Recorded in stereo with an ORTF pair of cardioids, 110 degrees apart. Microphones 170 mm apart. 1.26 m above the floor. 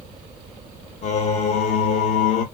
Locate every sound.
1.0 s singing: 45° left, 0.8 m